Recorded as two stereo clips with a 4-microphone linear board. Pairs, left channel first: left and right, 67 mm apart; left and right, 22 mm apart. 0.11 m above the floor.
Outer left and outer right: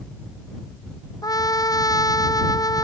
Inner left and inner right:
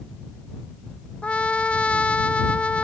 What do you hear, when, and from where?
1.2 s a trumpet: 70° left (ahead or behind)